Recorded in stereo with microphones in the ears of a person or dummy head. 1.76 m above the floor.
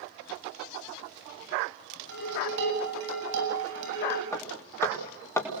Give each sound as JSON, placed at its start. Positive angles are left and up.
{"t": 2.1, "sound": "dishes clattering", "side_deg": -65, "distance_m": 8.5}
{"t": 4.3, "sound": "hammering", "side_deg": 15, "distance_m": 4.5}